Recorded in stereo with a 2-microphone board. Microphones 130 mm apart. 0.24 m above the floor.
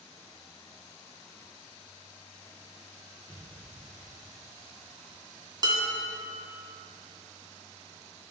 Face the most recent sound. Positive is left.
turn(degrees=-35)  # may be behind; listen again after turning